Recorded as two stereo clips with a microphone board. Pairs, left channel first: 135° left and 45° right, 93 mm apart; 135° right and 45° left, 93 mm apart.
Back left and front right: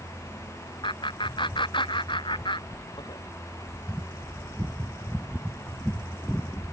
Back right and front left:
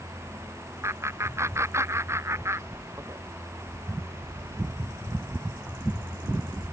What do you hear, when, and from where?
0.8 s laughter: 105° left